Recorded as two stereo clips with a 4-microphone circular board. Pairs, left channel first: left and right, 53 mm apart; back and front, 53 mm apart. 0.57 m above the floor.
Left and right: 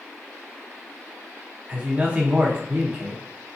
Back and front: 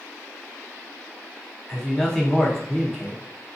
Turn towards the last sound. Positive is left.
turn(degrees=-115)